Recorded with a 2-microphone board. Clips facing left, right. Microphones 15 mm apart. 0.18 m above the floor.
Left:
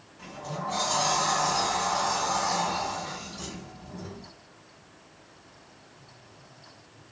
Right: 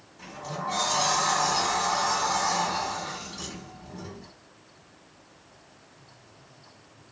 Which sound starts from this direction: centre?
A sliding door, at 0.2 s.